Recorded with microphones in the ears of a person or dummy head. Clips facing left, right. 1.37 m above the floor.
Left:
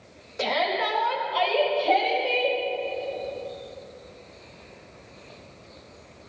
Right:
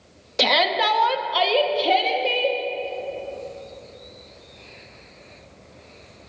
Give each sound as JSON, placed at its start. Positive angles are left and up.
{"t": 0.4, "sound": "a shout", "side_deg": -80, "distance_m": 1.2}